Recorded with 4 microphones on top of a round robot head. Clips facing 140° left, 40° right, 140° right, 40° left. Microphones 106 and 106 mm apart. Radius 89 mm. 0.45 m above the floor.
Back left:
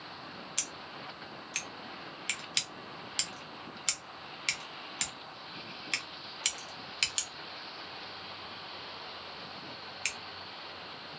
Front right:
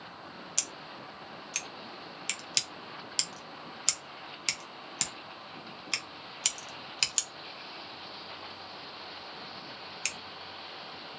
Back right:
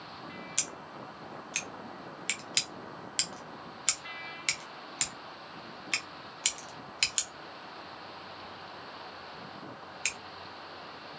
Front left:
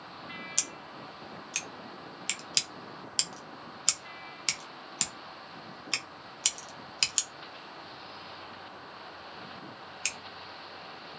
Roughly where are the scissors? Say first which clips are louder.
Front right 1 dB, back right 1 dB; ahead.